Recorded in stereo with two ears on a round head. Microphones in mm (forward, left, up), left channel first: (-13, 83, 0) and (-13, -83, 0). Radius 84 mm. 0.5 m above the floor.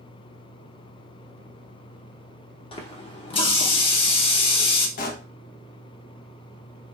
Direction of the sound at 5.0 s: 45° left (ahead or behind).